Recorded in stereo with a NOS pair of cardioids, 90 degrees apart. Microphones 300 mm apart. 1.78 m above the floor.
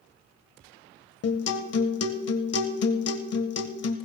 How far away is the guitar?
About 1.5 m.